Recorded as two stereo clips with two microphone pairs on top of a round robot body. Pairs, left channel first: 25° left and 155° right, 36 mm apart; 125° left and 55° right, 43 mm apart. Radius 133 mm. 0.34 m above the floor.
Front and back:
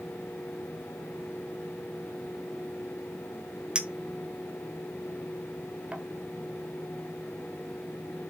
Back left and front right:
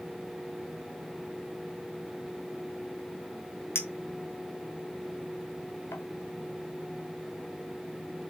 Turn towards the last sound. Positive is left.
turn(degrees=140)